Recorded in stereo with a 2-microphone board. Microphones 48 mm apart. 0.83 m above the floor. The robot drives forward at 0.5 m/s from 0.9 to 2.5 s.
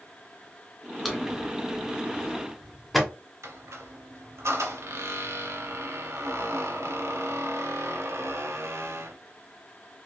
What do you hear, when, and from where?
1.1 s a drawer: centre (ahead or behind), 0.7 m
3.4 s a squeak: 85° right, 0.6 m